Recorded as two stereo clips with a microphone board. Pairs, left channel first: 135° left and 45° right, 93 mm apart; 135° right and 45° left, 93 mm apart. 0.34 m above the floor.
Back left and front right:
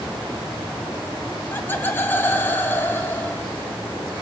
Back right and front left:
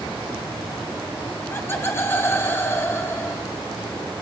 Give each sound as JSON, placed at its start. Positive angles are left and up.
{"t": 1.5, "sound": "laughter", "azimuth_deg": 180, "distance_m": 1.3}